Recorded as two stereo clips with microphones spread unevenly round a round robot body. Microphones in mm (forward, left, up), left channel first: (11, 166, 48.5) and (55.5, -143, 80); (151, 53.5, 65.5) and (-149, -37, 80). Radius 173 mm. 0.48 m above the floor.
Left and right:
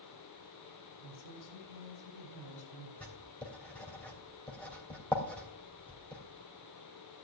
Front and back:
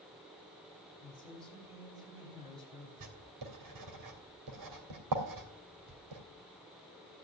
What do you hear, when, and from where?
1.0 s a woman speaking: 120° left, 4 m
3.0 s writing: straight behind, 3 m